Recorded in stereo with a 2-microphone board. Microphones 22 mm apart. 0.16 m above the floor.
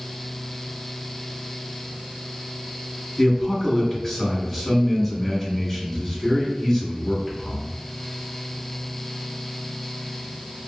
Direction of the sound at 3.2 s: 15° left (ahead or behind).